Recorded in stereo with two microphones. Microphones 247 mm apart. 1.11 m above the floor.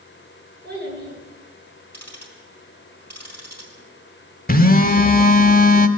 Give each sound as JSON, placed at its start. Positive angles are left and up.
{"t": 0.6, "sound": "a child speaking", "side_deg": -45, "distance_m": 8.5}
{"t": 1.9, "sound": "ticking", "side_deg": 10, "distance_m": 4.5}
{"t": 4.5, "sound": "a phone buzzing", "side_deg": 35, "distance_m": 1.0}